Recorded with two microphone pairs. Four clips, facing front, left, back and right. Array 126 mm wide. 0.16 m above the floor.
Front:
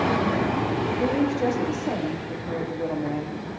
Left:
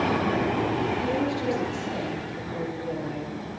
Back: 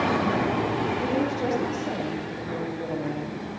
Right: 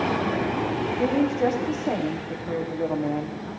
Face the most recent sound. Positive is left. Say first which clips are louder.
# right 4 dB, front 3 dB
turn(degrees=-75)